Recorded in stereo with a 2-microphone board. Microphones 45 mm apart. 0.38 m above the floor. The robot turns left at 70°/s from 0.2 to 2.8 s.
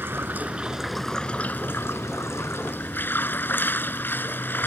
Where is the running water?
130° right; by 4.7 s 50° left.